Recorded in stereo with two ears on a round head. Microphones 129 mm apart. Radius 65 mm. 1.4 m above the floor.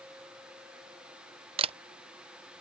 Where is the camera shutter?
40° right (ahead or behind).